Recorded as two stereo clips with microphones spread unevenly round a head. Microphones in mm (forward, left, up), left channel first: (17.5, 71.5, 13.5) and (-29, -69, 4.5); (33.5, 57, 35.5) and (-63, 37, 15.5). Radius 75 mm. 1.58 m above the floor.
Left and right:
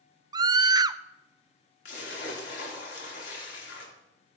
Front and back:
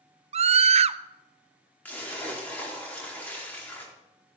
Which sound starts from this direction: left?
A splash, at 1.9 s.